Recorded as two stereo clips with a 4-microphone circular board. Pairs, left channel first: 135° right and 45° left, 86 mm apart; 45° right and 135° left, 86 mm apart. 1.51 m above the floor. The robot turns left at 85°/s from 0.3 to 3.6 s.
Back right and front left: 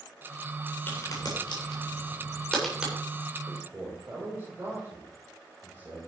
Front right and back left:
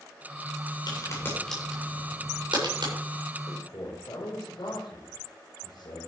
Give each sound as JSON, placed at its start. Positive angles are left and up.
{"t": 0.9, "sound": "a crack", "azimuth_deg": -75, "distance_m": 7.0}
{"t": 3.5, "sound": "a man speaking", "azimuth_deg": 0, "distance_m": 4.5}